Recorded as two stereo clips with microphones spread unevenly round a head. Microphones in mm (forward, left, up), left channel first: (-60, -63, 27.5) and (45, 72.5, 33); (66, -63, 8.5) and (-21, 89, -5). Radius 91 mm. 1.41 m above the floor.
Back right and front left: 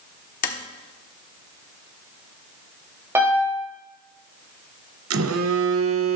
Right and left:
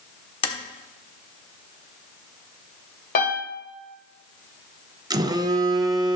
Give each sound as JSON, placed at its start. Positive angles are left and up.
{"t": 0.4, "sound": "tapping", "azimuth_deg": -100, "distance_m": 1.2}
{"t": 3.1, "sound": "a piano", "azimuth_deg": -25, "distance_m": 3.5}
{"t": 5.1, "sound": "a phone buzzing", "azimuth_deg": 50, "distance_m": 0.9}